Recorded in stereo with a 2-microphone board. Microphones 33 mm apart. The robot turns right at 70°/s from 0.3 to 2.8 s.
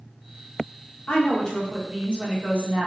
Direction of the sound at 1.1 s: 135° left.